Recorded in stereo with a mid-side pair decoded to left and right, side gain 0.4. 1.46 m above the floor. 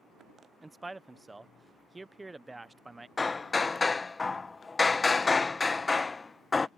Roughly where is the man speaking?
Ahead.